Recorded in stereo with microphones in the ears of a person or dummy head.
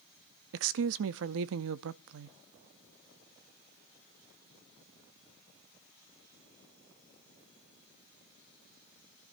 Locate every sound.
0.5 s a woman speaking: 75° right (ahead or behind), 0.6 m